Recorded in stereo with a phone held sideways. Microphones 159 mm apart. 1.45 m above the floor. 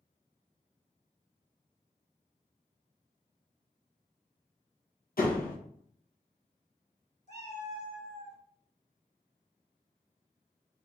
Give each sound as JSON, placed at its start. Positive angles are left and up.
{"t": 5.2, "sound": "a door slam", "side_deg": 70, "distance_m": 1.0}
{"t": 7.3, "sound": "a cat meowing", "side_deg": 45, "distance_m": 2.0}